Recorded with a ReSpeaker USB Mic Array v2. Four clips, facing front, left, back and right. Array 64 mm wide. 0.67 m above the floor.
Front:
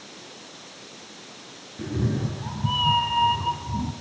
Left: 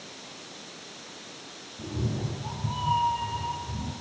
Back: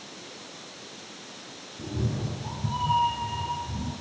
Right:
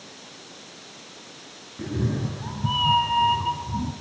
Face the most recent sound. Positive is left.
turn(degrees=-55)